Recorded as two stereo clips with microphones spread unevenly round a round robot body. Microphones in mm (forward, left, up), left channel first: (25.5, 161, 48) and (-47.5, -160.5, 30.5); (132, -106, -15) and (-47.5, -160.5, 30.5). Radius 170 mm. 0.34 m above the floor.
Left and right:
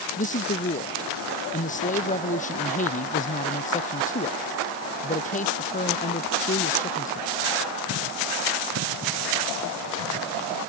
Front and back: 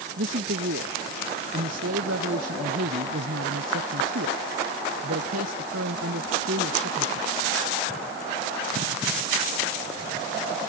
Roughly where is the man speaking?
Behind left.